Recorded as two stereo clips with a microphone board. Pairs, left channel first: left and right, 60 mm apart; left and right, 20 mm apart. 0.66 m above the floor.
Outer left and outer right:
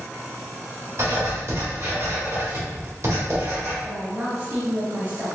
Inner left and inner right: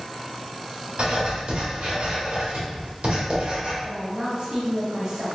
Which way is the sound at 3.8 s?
40° right (ahead or behind).